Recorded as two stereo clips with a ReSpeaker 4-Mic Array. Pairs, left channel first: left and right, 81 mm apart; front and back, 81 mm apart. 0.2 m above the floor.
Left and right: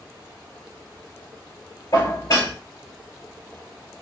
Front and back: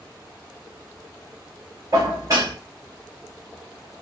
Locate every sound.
1.9 s dishes clattering: 135° left, 3 m